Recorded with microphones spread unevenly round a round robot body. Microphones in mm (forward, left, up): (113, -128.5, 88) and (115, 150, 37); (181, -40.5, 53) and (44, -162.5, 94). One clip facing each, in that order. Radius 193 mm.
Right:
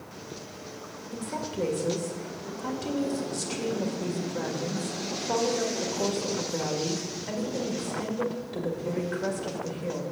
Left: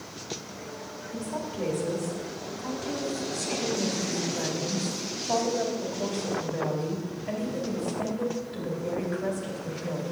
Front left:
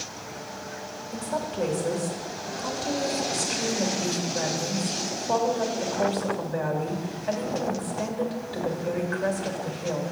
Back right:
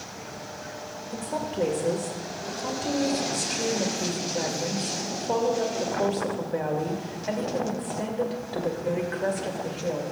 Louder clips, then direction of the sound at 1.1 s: Even, even; 65° right.